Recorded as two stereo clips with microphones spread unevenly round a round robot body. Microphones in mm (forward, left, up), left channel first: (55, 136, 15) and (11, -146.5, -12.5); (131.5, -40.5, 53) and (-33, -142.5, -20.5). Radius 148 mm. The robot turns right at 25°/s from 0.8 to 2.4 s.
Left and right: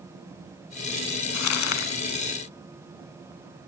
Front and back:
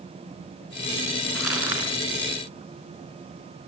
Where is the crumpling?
120° left, 1.3 m; by 1.9 s 130° left, 1.3 m.